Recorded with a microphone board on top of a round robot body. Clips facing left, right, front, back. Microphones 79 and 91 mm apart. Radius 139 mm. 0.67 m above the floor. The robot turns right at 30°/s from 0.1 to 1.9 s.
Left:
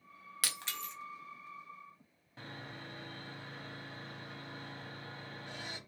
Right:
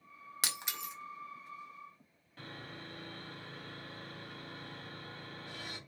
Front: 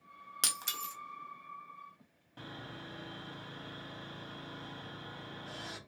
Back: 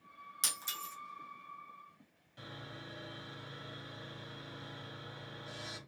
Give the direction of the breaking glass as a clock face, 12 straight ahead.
1 o'clock.